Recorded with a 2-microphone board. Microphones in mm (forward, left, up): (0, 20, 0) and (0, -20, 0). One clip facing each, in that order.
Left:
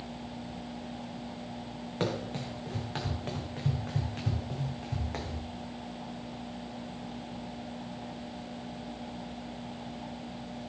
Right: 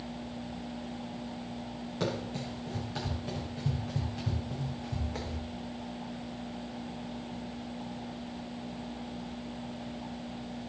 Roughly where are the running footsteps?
Left.